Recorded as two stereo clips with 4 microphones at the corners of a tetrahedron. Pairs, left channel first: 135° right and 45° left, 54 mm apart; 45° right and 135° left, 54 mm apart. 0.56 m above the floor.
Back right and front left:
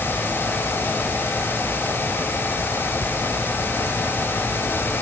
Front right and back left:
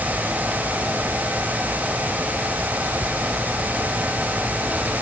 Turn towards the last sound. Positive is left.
No sound to turn to.